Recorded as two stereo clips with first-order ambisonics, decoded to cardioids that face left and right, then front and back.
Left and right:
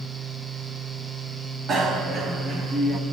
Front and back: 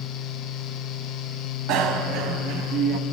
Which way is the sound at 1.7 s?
155° right.